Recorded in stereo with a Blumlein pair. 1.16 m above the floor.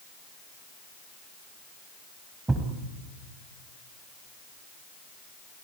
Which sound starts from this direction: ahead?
A thud, at 2.5 s.